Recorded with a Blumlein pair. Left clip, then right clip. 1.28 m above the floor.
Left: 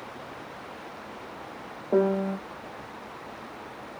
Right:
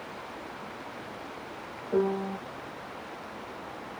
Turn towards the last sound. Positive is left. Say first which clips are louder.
# left 4 dB
turn(degrees=60)